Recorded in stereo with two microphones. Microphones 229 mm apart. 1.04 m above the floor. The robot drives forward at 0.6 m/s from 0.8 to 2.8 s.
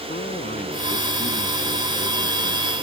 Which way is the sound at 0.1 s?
35° left (ahead or behind).